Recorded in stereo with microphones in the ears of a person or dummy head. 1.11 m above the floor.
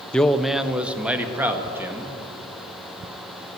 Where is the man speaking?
5° left (ahead or behind), 0.5 m; by 2.1 s 15° right (ahead or behind), 1.9 m.